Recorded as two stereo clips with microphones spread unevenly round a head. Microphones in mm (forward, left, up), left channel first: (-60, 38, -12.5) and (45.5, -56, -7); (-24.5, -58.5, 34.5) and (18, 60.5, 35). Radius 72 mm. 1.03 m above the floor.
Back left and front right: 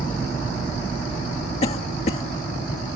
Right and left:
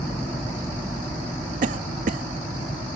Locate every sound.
1.6 s a cough: 90° left